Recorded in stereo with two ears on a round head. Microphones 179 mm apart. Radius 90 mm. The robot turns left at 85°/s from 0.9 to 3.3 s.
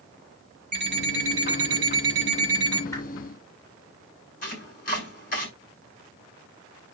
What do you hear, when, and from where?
0.7 s an alarm clock: 30° right, 8 m; by 2.8 s 165° left, 8 m
2.9 s a whoosh: 15° left (ahead or behind), 5 m; by 3.0 s 25° left (ahead or behind), 5 m
4.4 s chopping: 45° left (ahead or behind), 5 m